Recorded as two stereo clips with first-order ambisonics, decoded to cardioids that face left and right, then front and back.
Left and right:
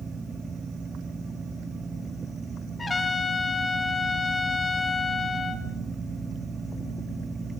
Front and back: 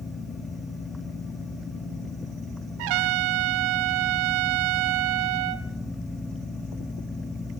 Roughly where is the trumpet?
Behind.